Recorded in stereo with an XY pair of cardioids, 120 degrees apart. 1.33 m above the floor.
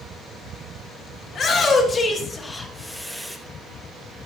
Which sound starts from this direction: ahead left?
A shout, at 1.3 s.